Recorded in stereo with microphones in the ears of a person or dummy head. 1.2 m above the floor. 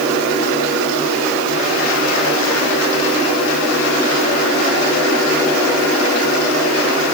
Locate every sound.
Only background noise.